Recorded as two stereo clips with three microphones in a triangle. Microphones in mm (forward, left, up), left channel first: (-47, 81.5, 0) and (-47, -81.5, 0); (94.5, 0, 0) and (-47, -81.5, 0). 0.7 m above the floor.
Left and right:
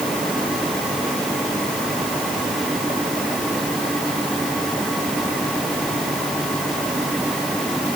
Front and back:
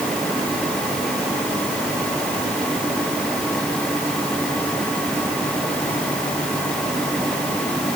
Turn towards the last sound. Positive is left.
No sound to turn to.